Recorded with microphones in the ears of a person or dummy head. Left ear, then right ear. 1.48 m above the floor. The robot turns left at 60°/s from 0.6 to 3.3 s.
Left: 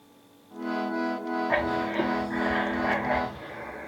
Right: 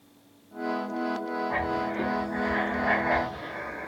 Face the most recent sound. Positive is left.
turn(degrees=-30)